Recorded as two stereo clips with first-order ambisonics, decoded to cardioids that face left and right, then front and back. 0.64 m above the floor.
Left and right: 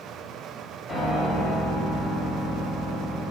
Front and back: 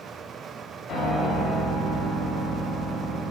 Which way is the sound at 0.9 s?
20° left.